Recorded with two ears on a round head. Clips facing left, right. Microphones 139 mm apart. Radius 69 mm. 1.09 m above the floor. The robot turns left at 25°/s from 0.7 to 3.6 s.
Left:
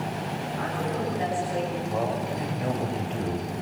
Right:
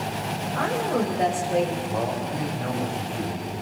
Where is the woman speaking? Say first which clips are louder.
Right 6 dB; 70° right (ahead or behind), 7 m; by 1.8 s 45° right (ahead or behind), 7 m.